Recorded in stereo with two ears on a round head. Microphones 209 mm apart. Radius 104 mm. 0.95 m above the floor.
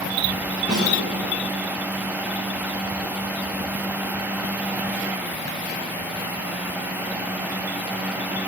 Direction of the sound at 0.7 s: 5° left (ahead or behind).